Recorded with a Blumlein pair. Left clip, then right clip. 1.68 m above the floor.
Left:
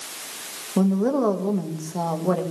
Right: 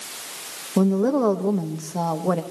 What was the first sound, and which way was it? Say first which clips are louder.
A woman speaking: right 2 dB; 5° right.